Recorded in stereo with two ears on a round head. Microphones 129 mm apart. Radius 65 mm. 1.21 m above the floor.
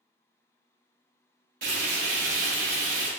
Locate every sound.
1.6 s frying: 65° right (ahead or behind), 1.8 m